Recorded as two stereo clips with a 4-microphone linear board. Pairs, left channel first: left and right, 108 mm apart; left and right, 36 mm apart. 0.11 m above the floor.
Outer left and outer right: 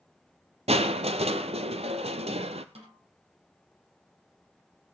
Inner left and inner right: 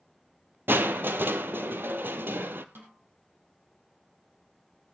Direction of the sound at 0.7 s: 70° right (ahead or behind).